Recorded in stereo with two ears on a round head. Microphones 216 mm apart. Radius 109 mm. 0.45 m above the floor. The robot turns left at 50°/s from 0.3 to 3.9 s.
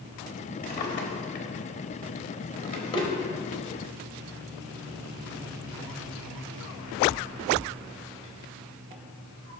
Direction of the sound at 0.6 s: 40° left (ahead or behind).